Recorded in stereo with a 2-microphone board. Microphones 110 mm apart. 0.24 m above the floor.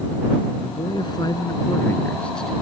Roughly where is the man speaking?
Left.